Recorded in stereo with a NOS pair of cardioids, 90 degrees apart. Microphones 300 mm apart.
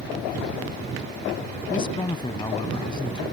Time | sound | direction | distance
1.7 | a man speaking | 15° left | ?